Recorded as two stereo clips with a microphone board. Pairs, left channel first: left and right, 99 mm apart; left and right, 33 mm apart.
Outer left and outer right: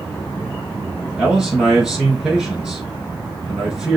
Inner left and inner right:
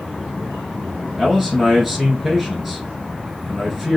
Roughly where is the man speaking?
Centre.